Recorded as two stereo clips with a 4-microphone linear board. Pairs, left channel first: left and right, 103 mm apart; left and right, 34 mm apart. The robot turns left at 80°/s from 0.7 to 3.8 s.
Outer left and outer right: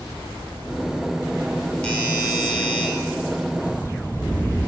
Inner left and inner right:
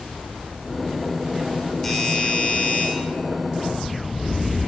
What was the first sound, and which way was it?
A doorbell, 165° left.